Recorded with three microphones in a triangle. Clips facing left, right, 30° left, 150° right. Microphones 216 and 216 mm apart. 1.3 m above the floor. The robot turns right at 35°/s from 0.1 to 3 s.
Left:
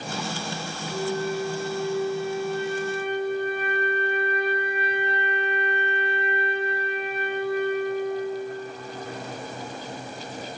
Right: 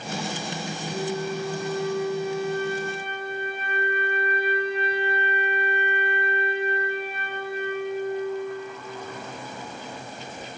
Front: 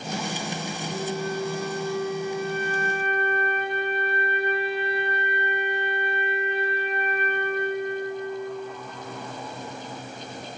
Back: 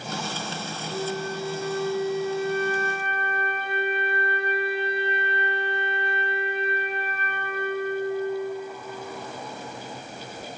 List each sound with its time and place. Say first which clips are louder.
0.9 s a flute: left 2 dB, even; 165° right, 1.4 m; by 8.8 s 90° right, 1.4 m